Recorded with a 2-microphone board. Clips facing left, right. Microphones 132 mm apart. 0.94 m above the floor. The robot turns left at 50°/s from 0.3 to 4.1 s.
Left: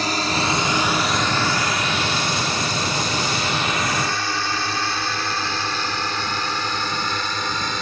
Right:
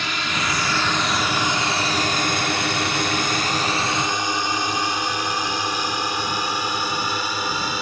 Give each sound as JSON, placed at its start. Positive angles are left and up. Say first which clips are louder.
{"t": 0.0, "sound": "a drone", "louder": "left 4 dB", "side_deg": 40}